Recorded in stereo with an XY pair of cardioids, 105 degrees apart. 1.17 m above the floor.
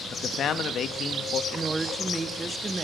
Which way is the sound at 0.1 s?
60° left.